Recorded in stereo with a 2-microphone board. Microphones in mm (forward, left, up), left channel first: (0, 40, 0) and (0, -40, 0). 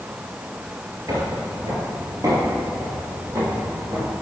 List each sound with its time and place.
1.1 s footsteps: 45° right (ahead or behind), 1.9 m; by 4.1 s 35° right (ahead or behind), 4.5 m